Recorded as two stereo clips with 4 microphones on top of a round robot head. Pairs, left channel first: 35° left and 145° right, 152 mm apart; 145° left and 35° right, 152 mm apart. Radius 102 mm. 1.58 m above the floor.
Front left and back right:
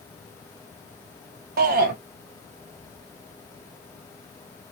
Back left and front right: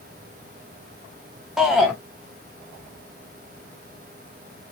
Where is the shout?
120° right, 0.5 m.